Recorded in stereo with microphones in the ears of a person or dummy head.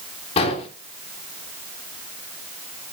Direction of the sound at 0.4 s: 30° left (ahead or behind).